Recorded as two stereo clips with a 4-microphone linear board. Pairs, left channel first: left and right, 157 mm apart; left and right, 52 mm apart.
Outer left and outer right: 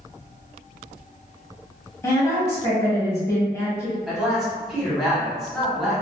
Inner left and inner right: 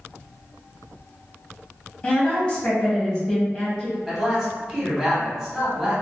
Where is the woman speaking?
20° left (ahead or behind), 0.9 m.